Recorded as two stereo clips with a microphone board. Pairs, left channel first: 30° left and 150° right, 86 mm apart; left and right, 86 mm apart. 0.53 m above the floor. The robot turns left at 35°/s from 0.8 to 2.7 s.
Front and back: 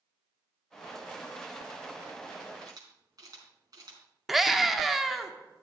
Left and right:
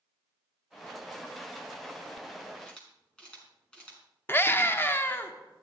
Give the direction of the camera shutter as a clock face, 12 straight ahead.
6 o'clock.